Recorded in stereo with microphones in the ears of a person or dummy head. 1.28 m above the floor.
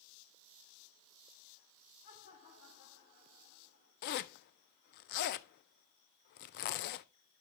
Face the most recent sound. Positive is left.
turn(degrees=50)  # may be behind; listen again after turning